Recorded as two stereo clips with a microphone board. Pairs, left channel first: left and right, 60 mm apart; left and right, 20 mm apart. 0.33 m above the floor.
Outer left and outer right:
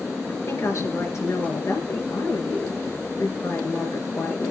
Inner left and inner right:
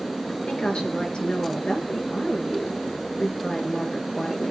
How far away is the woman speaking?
About 4.5 m.